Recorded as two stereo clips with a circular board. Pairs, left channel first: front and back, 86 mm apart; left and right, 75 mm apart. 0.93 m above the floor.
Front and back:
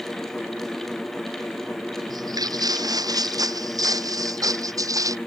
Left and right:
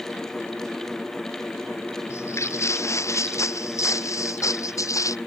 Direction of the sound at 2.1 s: 140° left.